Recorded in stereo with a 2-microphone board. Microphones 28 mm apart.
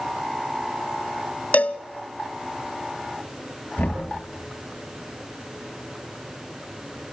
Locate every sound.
1.5 s a cowbell: 65° left (ahead or behind), 0.5 m
3.8 s knocking: 75° left (ahead or behind), 6 m